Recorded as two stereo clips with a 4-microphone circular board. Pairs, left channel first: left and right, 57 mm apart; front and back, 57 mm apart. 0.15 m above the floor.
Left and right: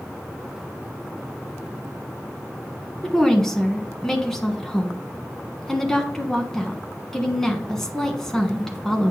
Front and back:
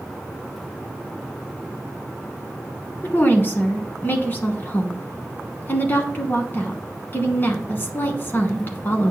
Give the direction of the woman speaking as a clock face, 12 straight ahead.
12 o'clock.